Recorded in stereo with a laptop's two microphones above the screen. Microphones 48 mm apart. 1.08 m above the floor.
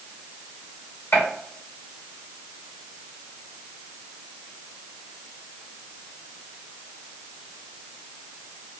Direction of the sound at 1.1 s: 45° left (ahead or behind).